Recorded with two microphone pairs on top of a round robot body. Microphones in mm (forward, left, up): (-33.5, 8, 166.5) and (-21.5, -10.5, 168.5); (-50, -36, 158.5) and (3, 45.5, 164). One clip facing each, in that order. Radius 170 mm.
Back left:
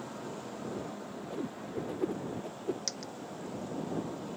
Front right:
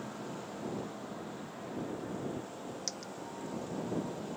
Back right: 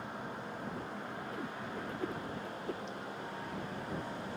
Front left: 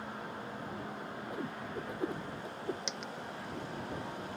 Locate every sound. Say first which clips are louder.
1.3 s a whoosh: back left 4 dB, front left 4 dB; 130° left
2.9 s a dropped coin: back left 2 dB, even; 45° left